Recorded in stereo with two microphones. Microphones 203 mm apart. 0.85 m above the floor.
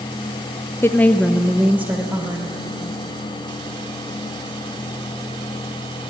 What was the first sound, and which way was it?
A woman speaking, 10° left (ahead or behind).